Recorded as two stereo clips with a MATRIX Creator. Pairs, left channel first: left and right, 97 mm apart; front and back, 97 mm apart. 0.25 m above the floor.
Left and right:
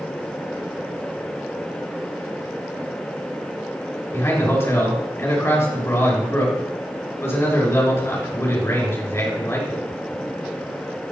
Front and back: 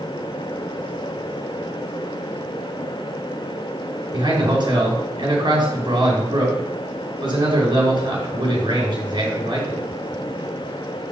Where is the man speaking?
150° left, 4 m.